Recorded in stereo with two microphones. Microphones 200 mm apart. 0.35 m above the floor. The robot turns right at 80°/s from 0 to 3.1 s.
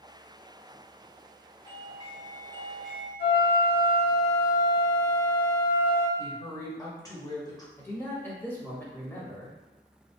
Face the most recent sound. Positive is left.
turn(degrees=10)  # may be behind; listen again after turning